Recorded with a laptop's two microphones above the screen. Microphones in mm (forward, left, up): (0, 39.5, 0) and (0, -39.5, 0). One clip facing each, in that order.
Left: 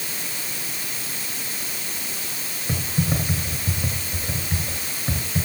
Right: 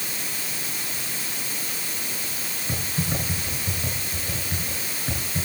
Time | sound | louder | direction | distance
2.7 | typing on a keyboard | left 4 dB | 10° left (ahead or behind) | 3.5 m